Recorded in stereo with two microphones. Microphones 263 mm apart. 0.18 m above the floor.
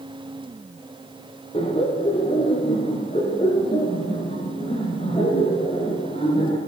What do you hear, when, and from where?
1.5 s laughter: 20° left (ahead or behind), 3 m